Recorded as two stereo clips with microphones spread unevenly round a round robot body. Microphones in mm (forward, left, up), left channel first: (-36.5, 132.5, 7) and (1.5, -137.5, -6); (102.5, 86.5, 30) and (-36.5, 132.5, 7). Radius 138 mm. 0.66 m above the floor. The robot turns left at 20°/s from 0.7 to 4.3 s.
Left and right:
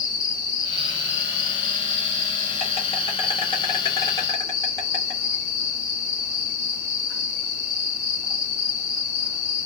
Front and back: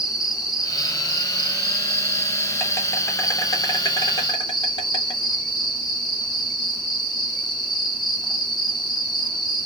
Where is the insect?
95° left, 1.1 m; by 9.7 s 25° left, 1.1 m.